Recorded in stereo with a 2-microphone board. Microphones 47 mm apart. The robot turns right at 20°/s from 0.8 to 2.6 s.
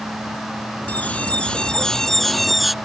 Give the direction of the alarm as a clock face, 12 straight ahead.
7 o'clock.